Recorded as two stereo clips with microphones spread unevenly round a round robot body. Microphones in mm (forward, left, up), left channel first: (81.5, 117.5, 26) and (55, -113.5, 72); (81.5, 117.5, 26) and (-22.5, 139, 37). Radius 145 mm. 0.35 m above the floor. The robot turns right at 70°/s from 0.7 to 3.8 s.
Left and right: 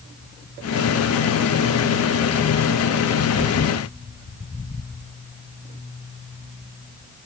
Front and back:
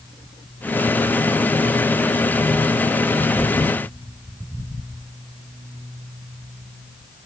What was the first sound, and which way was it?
Only background noise.